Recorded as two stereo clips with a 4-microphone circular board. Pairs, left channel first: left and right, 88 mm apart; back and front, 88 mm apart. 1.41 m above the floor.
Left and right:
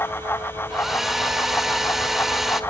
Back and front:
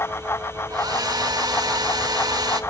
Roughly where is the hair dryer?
Ahead.